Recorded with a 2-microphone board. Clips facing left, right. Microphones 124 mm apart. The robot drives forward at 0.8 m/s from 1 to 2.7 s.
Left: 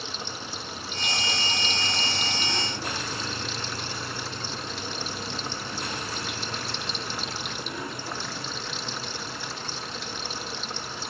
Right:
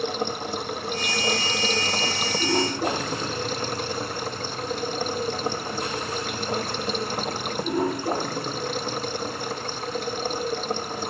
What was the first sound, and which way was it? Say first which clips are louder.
Running water: right 10 dB; 60° right (ahead or behind).